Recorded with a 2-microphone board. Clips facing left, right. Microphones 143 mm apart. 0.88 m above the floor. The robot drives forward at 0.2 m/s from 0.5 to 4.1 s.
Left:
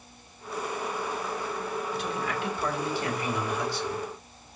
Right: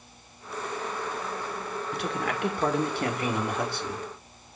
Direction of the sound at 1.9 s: 65° right (ahead or behind).